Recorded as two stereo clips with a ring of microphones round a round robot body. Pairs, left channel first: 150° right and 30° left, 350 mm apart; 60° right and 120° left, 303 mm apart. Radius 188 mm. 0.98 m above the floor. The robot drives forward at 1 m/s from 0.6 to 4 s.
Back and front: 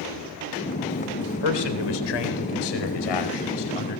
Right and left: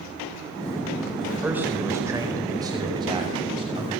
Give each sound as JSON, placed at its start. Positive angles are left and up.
{"t": 1.3, "sound": "a man speaking", "azimuth_deg": -155, "distance_m": 4.0}